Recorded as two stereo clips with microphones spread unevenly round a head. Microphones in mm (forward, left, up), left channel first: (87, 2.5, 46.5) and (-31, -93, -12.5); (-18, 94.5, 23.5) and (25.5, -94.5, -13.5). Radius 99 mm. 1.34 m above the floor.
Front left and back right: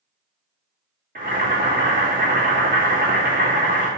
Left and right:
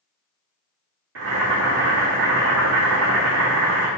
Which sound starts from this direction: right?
Boiling, at 1.1 s.